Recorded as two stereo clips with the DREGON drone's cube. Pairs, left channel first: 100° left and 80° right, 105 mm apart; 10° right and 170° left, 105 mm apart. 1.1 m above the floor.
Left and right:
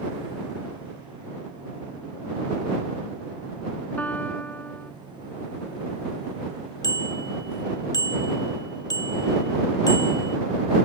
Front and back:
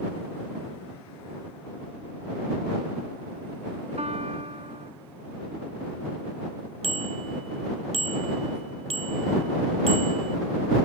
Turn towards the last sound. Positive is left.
turn(degrees=155)